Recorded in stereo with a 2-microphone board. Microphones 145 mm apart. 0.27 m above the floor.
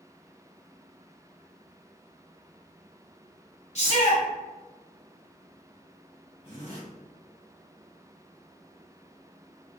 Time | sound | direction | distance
3.8 | a shout | 50° left (ahead or behind) | 1.5 m
6.4 | a zipper | 45° left (ahead or behind) | 1.8 m